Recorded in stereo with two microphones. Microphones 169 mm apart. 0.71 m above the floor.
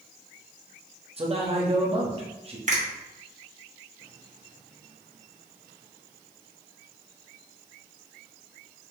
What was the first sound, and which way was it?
A man speaking, 35° right (ahead or behind).